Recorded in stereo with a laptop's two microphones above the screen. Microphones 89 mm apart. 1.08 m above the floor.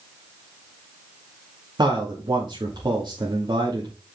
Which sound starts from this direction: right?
A man speaking, at 1.8 s.